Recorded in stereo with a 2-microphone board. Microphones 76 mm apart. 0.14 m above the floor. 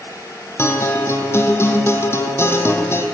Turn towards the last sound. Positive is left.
turn(degrees=40)  # may be behind; listen again after turning